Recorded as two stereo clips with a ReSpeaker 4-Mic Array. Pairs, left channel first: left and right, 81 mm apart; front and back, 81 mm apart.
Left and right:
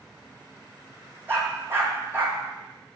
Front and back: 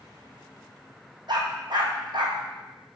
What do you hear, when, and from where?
1.3 s a dog barking: 155° right, 1.9 m